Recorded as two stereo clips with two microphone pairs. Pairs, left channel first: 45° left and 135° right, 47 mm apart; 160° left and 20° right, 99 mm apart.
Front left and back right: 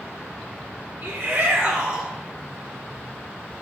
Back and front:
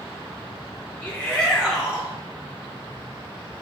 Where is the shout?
115° right, 2 m; by 2.1 s 70° right, 1.5 m.